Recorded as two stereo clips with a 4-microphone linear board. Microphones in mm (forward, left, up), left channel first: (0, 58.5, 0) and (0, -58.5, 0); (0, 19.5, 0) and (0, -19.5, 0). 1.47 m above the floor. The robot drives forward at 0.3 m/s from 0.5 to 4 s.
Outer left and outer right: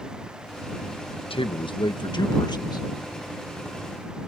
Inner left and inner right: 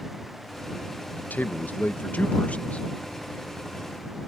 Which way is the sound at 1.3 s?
50° left (ahead or behind).